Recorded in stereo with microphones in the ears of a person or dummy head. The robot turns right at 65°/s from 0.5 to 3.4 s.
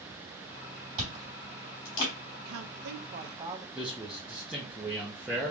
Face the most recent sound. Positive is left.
turn(degrees=-5)  # may be behind; listen again after turning